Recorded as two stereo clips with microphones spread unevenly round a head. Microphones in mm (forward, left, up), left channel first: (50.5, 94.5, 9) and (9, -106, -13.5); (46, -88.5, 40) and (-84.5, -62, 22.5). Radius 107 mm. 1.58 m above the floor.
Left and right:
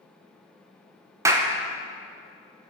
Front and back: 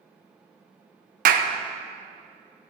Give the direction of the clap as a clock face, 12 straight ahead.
6 o'clock.